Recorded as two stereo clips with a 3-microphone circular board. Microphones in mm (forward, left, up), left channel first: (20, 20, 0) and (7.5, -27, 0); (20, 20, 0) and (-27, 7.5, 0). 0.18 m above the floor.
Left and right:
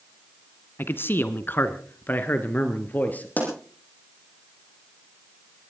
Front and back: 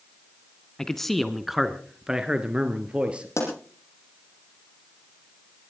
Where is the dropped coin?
I don't hear a dropped coin.